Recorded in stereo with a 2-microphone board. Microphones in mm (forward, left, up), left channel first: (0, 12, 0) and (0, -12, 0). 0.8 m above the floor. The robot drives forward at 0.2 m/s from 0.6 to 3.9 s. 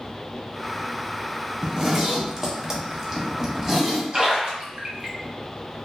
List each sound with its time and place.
1.6 s a zipper: 20° right (ahead or behind), 0.5 m; by 4.0 s 15° right (ahead or behind), 0.6 m
4.1 s a splash: 35° right (ahead or behind), 0.7 m